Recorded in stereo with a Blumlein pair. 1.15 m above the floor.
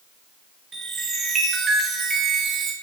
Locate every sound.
0.7 s a chime: 20° right, 1.3 m